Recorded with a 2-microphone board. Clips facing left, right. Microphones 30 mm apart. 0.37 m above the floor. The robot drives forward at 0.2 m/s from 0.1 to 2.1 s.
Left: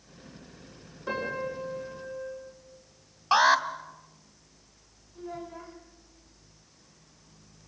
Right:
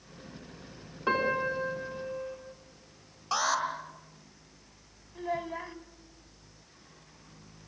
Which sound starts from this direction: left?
An alarm, at 3.3 s.